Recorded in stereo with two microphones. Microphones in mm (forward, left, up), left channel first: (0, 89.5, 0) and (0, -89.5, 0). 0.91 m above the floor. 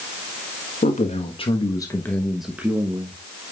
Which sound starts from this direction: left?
A man speaking, at 0.8 s.